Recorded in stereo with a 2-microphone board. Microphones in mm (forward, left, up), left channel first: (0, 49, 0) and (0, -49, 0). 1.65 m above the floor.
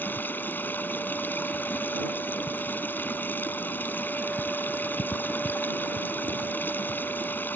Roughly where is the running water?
Centre.